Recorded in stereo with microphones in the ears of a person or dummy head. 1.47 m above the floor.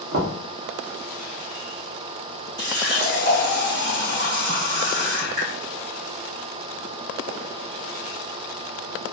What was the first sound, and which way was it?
Knocking, 75° right (ahead or behind).